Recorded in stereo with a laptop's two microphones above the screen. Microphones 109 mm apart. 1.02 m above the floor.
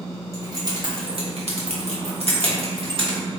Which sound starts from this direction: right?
Keys jangling, at 0.3 s.